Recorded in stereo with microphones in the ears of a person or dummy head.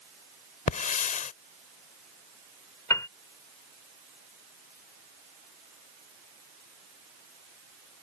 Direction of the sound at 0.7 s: 45° left (ahead or behind).